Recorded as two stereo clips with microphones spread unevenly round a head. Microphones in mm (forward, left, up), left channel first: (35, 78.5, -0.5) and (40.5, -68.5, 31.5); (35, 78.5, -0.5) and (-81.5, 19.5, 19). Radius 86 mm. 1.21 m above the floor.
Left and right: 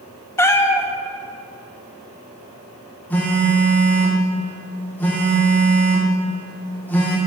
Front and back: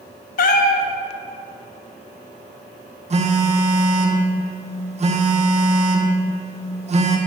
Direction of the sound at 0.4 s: 10° left.